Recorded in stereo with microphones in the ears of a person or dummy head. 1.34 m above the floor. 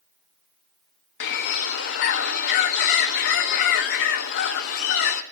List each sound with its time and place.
1.2 s a bird: 60° left (ahead or behind), 0.9 m